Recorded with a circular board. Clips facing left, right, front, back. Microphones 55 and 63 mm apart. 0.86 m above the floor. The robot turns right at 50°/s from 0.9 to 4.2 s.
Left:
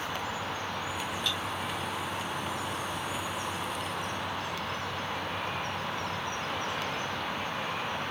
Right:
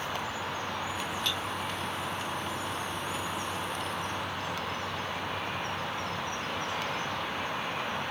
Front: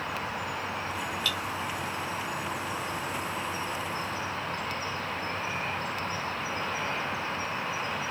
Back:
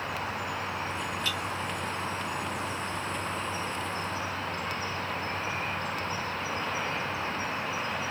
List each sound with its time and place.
1.2 s cutlery clinking: 120° right, 1.7 m; by 1.4 s 110° right, 1.7 m